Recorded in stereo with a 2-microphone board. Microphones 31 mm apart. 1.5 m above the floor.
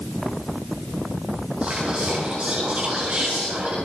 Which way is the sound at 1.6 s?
35° right (ahead or behind).